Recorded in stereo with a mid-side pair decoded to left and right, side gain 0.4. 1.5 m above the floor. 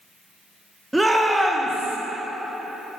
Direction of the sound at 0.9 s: 10° right.